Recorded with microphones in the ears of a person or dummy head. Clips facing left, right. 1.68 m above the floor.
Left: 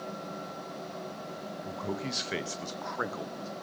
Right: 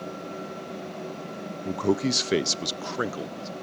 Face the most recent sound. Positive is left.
turn(degrees=-35)  # may be behind; listen again after turning